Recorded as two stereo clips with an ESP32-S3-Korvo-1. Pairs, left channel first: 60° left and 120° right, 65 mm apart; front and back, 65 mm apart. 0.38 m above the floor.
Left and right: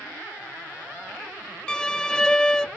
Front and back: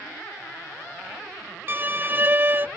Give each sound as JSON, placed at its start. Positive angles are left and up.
{"t": 1.7, "sound": "a violin", "azimuth_deg": 135, "distance_m": 0.6}